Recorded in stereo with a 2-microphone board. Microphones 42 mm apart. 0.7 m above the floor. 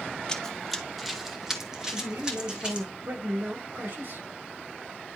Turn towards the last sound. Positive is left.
turn(degrees=-75)  # may be behind; listen again after turning